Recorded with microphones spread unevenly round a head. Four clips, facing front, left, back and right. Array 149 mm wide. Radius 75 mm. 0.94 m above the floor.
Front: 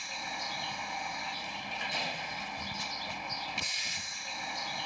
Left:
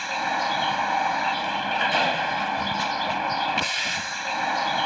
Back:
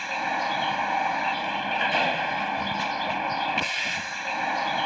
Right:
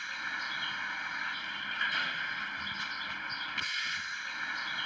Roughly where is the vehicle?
Behind left.